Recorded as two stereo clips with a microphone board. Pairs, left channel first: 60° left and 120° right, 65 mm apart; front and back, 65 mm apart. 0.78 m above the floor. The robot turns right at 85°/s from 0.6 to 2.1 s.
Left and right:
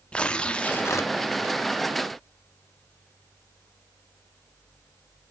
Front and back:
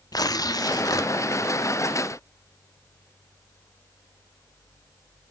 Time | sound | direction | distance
0.1 | tearing paper | 10° right | 0.8 m